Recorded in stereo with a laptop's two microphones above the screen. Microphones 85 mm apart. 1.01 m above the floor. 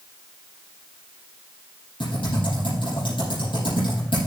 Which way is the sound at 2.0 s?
70° left (ahead or behind).